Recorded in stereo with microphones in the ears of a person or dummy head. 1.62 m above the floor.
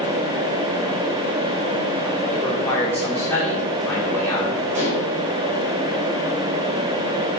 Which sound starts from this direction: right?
Dishes clattering, at 4.7 s.